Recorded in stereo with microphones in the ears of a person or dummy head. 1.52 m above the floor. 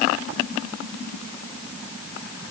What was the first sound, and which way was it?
Only background noise.